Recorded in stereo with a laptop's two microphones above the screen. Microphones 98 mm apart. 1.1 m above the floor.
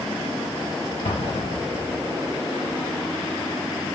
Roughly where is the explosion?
Left.